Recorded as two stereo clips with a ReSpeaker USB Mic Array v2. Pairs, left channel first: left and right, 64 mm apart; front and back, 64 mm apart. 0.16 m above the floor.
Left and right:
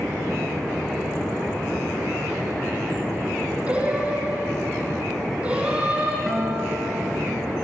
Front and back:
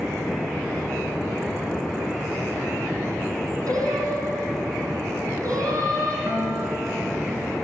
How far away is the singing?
About 6.5 m.